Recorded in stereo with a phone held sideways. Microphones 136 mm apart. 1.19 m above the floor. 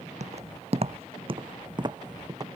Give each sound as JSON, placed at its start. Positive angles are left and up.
{"t": 0.2, "sound": "footsteps", "side_deg": -55}